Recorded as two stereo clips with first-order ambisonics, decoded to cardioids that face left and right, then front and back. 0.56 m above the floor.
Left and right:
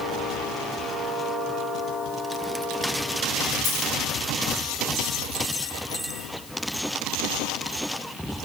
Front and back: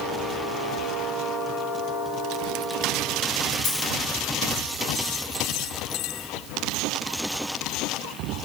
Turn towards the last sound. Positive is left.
turn(degrees=25)